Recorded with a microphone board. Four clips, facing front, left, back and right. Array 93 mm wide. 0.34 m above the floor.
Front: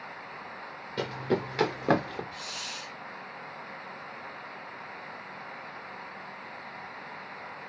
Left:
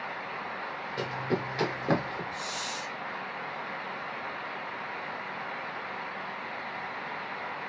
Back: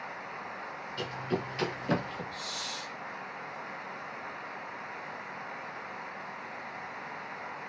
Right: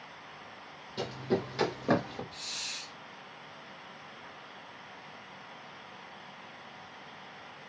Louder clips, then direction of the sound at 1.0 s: Even, front 5 dB; 10° left.